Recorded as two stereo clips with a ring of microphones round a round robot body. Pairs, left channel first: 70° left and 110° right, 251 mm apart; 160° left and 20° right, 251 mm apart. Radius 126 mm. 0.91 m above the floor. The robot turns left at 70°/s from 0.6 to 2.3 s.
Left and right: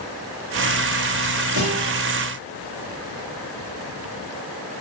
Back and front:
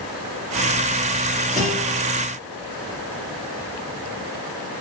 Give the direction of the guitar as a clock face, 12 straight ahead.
3 o'clock.